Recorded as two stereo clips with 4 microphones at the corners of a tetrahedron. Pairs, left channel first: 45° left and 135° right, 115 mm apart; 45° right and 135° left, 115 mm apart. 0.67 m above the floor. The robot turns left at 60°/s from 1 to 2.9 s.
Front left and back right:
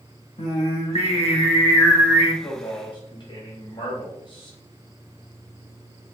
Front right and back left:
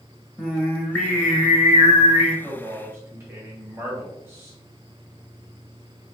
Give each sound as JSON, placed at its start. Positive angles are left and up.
{"t": 0.4, "sound": "singing", "azimuth_deg": 30, "distance_m": 0.9}
{"t": 2.4, "sound": "a man speaking", "azimuth_deg": 100, "distance_m": 0.8}